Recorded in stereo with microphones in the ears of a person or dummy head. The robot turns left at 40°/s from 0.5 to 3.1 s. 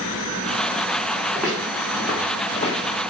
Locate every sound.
1.4 s footsteps: 5° left (ahead or behind), 4 m; by 3.0 s 35° left (ahead or behind), 2.5 m